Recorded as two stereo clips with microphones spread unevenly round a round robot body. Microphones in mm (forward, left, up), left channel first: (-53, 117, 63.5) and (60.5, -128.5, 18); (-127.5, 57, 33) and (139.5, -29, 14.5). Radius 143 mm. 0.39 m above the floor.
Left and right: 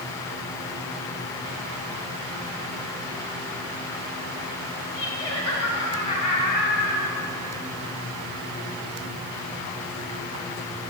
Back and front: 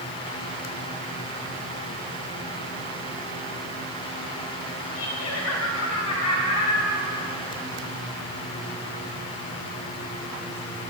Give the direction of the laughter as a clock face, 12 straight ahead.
5 o'clock.